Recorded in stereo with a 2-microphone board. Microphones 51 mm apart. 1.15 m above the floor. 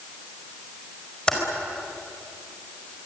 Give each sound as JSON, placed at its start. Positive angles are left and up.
{"t": 1.3, "sound": "typing on a keyboard", "side_deg": 15, "distance_m": 5.0}